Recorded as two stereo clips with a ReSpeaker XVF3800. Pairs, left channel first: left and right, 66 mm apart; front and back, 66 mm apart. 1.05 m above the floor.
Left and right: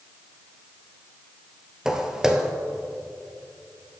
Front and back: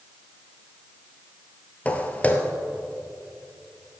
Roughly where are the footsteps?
Ahead right.